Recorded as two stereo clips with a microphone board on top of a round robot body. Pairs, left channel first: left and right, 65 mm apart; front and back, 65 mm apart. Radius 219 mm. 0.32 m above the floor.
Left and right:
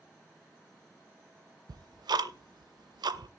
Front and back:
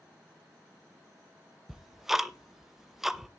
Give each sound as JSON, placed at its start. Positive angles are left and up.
{"t": 1.7, "sound": "ticking", "azimuth_deg": -95, "distance_m": 0.6}